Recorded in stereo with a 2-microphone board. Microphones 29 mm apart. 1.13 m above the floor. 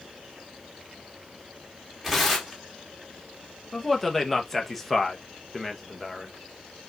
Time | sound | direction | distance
2.0 | tearing paper | 10° right (ahead or behind) | 1.6 m
3.7 | a man speaking | 5° left (ahead or behind) | 1.0 m